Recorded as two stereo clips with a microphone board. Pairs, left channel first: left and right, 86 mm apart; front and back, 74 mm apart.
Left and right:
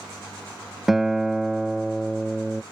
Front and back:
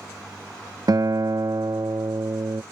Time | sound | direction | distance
0.9 | a guitar | 175° right | ?